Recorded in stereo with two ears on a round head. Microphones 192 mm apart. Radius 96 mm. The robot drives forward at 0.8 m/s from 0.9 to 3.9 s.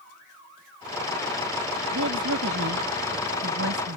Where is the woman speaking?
70° right (ahead or behind).